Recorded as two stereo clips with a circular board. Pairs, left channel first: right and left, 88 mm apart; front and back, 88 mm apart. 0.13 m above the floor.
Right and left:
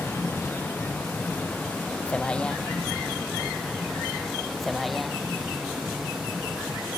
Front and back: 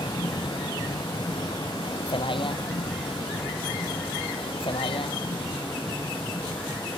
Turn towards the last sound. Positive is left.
turn(degrees=5)